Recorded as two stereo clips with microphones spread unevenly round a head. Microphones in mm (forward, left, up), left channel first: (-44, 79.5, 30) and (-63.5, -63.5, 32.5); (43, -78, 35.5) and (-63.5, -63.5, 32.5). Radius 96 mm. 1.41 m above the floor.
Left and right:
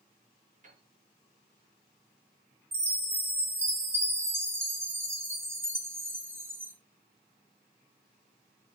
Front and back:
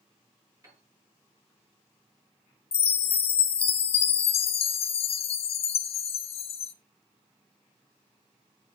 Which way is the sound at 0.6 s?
125° right.